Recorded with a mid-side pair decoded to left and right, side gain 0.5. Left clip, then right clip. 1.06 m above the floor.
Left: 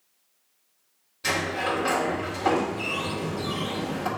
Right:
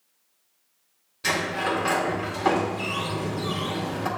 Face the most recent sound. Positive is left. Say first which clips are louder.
# right 1 dB
turn(degrees=-15)